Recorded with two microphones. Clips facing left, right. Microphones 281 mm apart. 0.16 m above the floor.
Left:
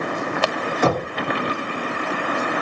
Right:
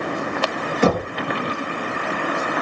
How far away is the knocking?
About 1.6 m.